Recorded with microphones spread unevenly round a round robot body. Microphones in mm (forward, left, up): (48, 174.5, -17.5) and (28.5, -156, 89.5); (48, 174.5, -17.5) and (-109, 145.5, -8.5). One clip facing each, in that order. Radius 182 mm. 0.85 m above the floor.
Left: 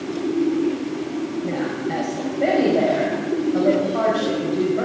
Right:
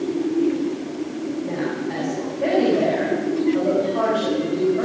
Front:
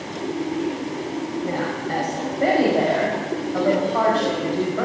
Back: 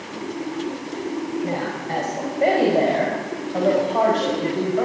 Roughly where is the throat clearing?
I don't hear throat clearing.